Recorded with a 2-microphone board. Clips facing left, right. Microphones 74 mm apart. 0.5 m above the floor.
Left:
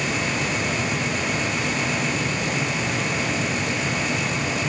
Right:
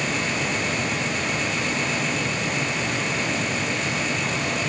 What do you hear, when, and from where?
Only background noise.